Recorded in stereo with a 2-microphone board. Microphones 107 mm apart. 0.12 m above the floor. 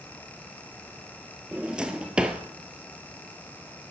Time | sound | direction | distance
1.5 | a drawer | 10° right (ahead or behind) | 1.2 m